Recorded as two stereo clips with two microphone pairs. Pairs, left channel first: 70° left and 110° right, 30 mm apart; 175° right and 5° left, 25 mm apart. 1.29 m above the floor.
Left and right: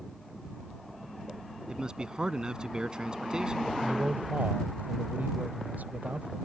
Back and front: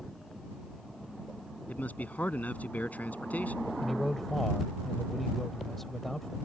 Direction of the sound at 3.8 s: 95° right.